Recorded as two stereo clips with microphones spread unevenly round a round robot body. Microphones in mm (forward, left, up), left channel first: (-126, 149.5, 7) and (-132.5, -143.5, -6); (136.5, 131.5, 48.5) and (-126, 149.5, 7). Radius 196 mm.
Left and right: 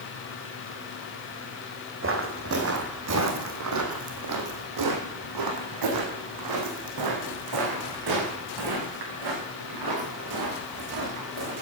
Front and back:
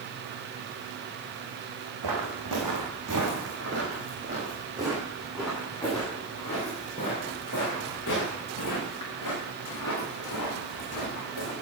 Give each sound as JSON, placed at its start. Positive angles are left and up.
{"t": 2.0, "sound": "footsteps", "azimuth_deg": -140, "distance_m": 3.0}